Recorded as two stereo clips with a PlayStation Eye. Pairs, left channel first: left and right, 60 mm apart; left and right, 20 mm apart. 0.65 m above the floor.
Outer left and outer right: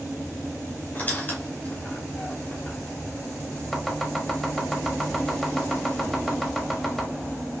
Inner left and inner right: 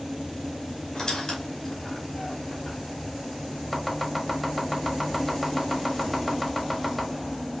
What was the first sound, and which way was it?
A squeak, 30° left (ahead or behind).